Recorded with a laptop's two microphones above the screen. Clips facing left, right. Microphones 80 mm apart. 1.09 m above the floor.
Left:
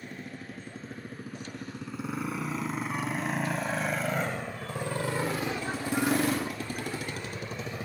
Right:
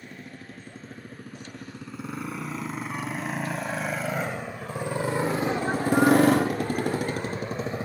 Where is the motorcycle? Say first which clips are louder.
Left 1 dB; 5° left (ahead or behind); by 7.9 s 30° right (ahead or behind).